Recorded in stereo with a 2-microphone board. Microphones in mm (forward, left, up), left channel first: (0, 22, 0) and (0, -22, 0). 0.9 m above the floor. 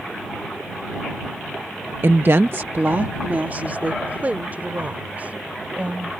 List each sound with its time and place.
2.0 s a woman speaking: 55° right (ahead or behind); by 6.1 s 35° right (ahead or behind)